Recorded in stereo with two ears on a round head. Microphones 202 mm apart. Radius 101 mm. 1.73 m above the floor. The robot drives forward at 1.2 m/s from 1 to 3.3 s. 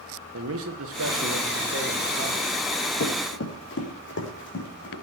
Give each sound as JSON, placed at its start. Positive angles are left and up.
{"t": 0.3, "sound": "a man speaking", "side_deg": -70, "distance_m": 1.7}
{"t": 3.0, "sound": "running footsteps", "side_deg": 50, "distance_m": 4.0}